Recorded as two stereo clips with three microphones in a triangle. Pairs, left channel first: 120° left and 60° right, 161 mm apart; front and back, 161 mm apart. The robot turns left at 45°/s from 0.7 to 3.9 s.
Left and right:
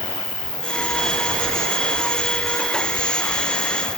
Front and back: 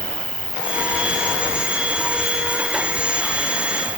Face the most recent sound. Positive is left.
turn(degrees=-160)